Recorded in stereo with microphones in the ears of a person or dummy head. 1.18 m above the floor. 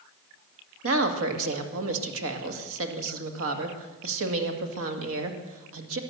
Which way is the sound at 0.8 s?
75° right (ahead or behind).